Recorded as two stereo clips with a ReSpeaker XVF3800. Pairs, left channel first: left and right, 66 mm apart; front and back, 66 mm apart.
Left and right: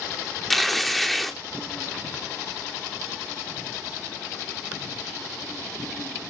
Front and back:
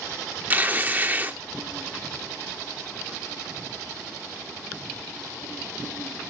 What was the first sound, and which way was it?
Tearing paper, 175° left.